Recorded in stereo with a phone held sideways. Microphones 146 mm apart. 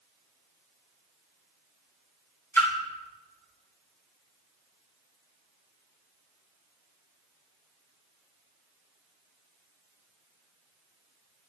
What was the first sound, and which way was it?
A splash, 15° left (ahead or behind).